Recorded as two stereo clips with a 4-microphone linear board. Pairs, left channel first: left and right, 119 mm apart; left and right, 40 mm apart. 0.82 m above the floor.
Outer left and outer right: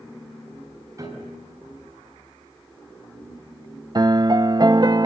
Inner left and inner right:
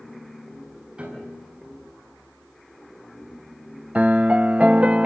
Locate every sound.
1.0 s a piano: 30° right (ahead or behind), 6 m
4.0 s a piano: 35° right (ahead or behind), 0.5 m